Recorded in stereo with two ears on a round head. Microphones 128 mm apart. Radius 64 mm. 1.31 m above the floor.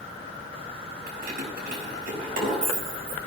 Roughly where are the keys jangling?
Right.